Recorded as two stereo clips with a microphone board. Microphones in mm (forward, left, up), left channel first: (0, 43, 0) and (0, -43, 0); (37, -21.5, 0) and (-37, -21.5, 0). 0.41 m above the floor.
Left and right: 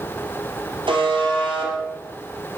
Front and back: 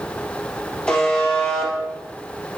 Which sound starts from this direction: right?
A buzzer, at 0.9 s.